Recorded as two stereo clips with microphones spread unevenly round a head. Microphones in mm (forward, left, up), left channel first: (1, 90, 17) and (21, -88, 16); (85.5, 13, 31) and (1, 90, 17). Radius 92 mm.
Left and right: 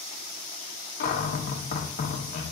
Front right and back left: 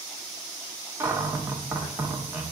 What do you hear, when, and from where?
1.0 s a cupboard door: 80° left, 0.8 m